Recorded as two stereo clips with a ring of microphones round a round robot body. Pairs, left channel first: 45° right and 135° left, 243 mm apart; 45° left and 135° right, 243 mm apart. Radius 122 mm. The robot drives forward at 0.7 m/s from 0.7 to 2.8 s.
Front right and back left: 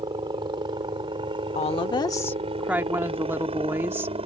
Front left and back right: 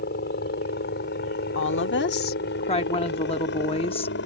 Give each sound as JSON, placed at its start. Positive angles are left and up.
{"t": 0.0, "sound": "a helicopter", "azimuth_deg": 70}
{"t": 1.6, "sound": "a woman speaking", "azimuth_deg": 15}